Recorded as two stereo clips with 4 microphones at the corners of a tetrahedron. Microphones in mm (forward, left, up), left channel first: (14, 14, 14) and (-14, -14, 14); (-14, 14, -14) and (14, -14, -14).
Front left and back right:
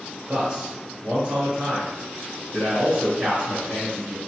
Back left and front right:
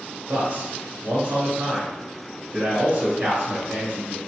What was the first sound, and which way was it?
A man speaking, 75° right.